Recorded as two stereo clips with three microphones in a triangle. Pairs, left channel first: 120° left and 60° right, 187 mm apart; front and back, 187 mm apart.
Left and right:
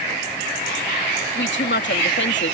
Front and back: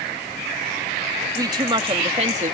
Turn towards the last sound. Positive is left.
turn(degrees=130)